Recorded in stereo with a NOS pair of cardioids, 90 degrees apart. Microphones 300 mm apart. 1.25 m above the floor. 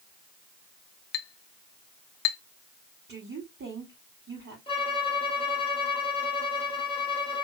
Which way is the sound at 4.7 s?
15° left.